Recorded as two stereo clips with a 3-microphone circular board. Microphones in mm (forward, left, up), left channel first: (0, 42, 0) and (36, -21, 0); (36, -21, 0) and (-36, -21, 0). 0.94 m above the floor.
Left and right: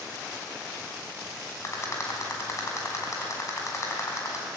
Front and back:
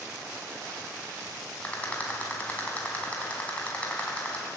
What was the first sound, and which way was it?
A rattle, 70° left.